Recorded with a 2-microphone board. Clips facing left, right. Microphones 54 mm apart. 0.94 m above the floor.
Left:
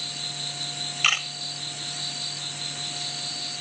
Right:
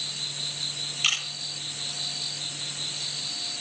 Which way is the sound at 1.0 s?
40° left (ahead or behind).